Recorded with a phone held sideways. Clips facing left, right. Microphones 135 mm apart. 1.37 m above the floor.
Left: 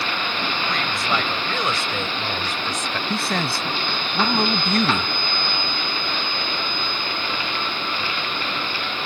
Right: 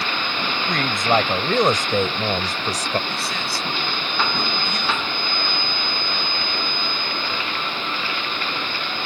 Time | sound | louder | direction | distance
0.7 | a woman speaking | right 7 dB | 45° right (ahead or behind) | ?
3.1 | a man speaking | left 4 dB | 55° left (ahead or behind) | ?